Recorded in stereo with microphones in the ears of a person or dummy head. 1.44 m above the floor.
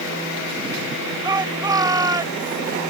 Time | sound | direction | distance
1.2 | a shout | 20° right (ahead or behind) | ?